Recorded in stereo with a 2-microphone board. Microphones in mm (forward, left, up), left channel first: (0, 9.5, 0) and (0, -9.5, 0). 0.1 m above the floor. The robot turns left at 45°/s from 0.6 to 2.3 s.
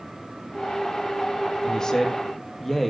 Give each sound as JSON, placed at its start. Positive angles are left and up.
{"t": 1.6, "sound": "a man speaking", "azimuth_deg": 40, "distance_m": 3.5}